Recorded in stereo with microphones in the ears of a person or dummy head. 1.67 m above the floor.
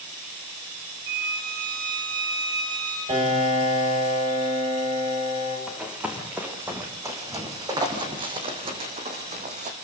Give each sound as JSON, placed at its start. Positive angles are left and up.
{"t": 1.1, "sound": "a violin", "side_deg": -70, "distance_m": 8.0}
{"t": 3.1, "sound": "a piano", "side_deg": -30, "distance_m": 8.0}
{"t": 5.7, "sound": "running footsteps", "side_deg": -5, "distance_m": 5.0}